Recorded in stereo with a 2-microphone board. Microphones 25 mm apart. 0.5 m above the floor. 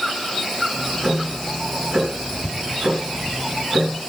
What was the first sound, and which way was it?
Ticking, 20° right (ahead or behind).